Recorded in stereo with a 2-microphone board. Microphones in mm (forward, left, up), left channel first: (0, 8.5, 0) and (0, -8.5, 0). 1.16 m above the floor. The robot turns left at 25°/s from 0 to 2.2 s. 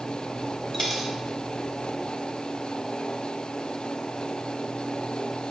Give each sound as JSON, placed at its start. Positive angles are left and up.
{"t": 0.7, "sound": "a dropped coin", "side_deg": 20, "distance_m": 2.5}